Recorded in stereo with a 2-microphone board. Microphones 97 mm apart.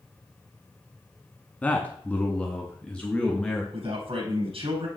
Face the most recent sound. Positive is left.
turn(degrees=-70)  # may be behind; listen again after turning